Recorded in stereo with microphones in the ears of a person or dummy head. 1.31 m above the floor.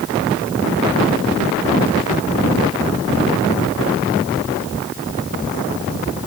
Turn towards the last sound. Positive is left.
No sound to turn to.